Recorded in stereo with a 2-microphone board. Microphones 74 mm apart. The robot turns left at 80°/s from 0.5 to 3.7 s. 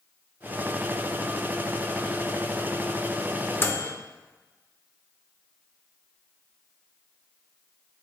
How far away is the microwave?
About 0.7 m.